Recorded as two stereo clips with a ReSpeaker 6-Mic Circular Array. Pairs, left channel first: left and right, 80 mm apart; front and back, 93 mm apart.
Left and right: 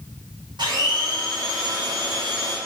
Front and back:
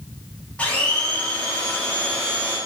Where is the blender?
75° right, 2 m.